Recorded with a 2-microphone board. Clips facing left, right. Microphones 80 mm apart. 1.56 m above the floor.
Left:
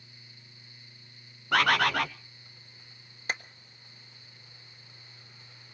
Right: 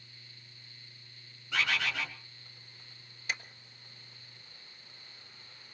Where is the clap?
45° left (ahead or behind), 1.3 m.